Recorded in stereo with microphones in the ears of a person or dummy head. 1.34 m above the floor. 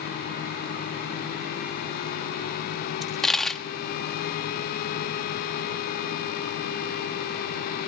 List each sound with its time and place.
3.0 s a dropped coin: 5° left (ahead or behind), 1.1 m